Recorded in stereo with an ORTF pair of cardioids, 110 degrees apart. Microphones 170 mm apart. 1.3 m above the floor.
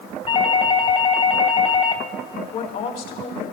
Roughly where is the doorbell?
Ahead left.